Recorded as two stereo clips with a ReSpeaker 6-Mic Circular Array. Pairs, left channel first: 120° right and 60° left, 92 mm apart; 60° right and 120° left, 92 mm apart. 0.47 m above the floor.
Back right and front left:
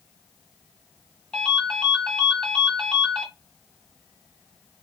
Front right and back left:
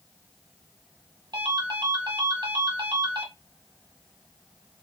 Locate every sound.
1.3 s a ringtone: 160° left, 1.6 m